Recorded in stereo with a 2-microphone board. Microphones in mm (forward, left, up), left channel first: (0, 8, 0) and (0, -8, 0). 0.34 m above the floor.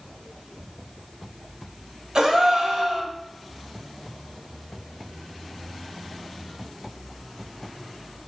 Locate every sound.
2.1 s a gasp: 45° right (ahead or behind), 1.0 m